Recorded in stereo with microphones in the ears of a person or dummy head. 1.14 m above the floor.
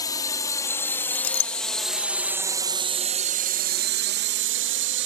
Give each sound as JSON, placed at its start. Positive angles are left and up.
{"t": 0.0, "sound": "a drone", "side_deg": 30}
{"t": 1.1, "sound": "a clink", "side_deg": 65}